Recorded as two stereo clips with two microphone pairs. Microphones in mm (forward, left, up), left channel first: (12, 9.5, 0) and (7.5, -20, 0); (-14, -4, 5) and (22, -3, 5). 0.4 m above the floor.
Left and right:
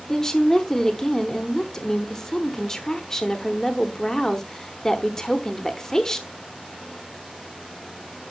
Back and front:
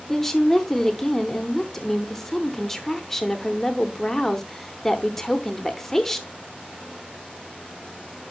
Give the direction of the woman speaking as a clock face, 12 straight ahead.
8 o'clock.